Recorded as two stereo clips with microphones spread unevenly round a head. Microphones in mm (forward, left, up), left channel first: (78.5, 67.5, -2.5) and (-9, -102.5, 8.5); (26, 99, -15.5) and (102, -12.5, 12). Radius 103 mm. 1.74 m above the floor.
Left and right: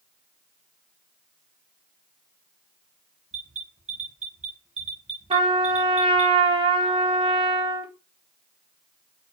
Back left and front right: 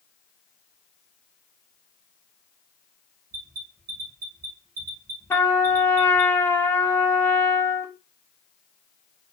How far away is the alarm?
About 3.5 m.